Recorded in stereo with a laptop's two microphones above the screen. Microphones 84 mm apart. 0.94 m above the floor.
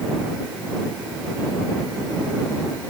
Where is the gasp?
I don't hear a gasp.